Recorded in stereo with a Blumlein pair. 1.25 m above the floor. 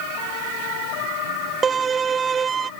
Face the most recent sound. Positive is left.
turn(degrees=-20)